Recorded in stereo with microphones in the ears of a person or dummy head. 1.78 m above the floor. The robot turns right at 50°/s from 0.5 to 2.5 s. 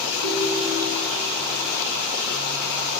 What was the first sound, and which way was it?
A ringtone, 70° right.